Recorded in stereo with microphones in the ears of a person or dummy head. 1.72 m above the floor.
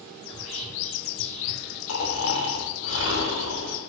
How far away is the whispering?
About 1.6 m.